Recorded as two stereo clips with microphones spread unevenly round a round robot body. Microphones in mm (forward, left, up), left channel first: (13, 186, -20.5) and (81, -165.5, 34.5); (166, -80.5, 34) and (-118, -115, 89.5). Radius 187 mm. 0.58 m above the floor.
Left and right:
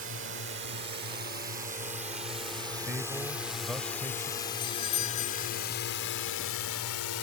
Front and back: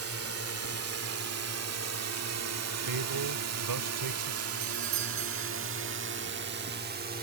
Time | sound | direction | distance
0.0 | a drone | 140° right | ?
2.9 | a man speaking | 165° right | ?
4.6 | a doorbell | 175° left | ?